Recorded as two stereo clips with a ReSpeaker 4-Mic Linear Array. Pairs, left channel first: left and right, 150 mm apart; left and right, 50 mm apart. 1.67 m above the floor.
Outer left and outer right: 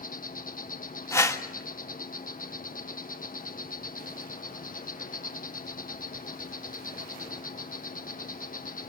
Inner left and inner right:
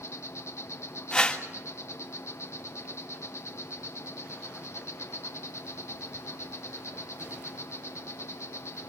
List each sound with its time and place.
0.0 s an insect: 65° left (ahead or behind), 1.2 m
1.1 s a whoosh: 20° left (ahead or behind), 1.4 m